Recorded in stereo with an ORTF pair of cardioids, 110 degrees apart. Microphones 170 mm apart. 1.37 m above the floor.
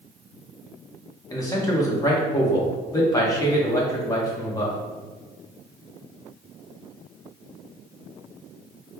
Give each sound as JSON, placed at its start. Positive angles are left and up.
{"t": 1.3, "sound": "a man speaking", "azimuth_deg": 20, "distance_m": 1.2}